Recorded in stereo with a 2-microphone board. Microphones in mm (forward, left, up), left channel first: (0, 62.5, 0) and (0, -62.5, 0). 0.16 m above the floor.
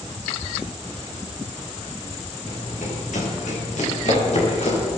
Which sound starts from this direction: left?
Running footsteps, at 2.5 s.